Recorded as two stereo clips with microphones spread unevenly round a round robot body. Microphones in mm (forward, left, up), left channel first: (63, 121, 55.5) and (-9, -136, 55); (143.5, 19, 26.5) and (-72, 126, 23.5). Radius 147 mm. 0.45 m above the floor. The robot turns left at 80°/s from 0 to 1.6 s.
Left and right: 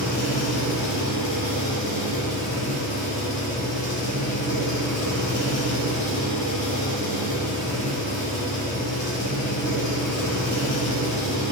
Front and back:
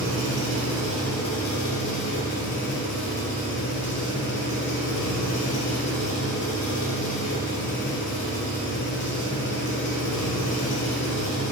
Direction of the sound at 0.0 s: 140° left.